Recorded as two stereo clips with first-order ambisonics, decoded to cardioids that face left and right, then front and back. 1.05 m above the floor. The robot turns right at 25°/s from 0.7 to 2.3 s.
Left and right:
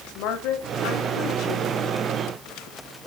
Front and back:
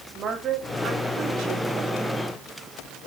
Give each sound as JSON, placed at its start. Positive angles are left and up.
{"t": 0.1, "sound": "a woman speaking", "azimuth_deg": 115, "distance_m": 2.5}